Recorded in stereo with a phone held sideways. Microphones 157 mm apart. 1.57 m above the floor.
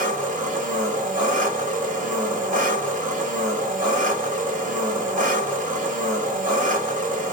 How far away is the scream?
No scream in this recording.